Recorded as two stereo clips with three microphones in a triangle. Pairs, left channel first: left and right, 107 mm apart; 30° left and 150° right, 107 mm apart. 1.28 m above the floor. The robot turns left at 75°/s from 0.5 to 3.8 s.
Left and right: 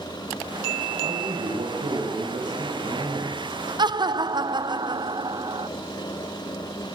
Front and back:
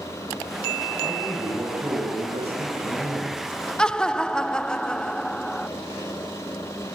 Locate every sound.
1.0 s a man speaking: 30° right, 6.5 m; by 3.4 s 150° left, 6.5 m
3.8 s laughter: 50° right, 0.8 m